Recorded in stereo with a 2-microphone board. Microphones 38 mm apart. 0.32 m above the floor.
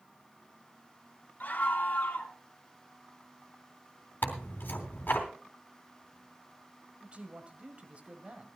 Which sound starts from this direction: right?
A man speaking, at 7.0 s.